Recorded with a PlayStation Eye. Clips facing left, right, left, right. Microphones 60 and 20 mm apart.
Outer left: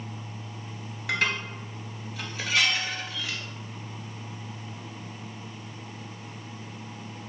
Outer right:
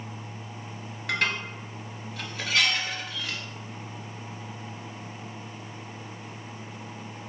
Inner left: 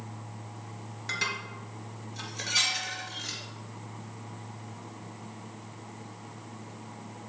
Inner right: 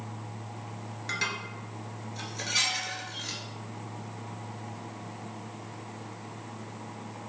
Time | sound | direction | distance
1.1 | dishes clattering | centre (ahead or behind) | 1.5 m